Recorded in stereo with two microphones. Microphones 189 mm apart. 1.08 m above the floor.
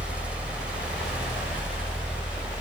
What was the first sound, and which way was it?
Only background noise.